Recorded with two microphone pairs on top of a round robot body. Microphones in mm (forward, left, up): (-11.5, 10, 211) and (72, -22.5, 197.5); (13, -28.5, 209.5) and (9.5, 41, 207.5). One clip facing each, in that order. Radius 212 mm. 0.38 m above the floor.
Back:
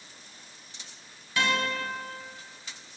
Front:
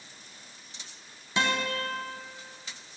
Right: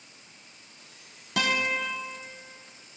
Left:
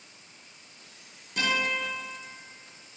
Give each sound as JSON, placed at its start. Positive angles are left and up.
{"t": 1.4, "sound": "a guitar", "azimuth_deg": -95, "distance_m": 0.6}